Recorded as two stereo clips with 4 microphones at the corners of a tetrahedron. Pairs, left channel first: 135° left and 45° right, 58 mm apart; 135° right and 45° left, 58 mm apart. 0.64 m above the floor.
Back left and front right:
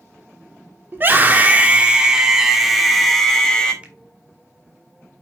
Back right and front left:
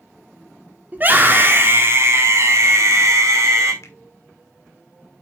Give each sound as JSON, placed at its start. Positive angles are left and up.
{"t": 0.9, "sound": "a scream", "azimuth_deg": -5, "distance_m": 2.0}
{"t": 3.8, "sound": "a finger snap", "azimuth_deg": -110, "distance_m": 1.8}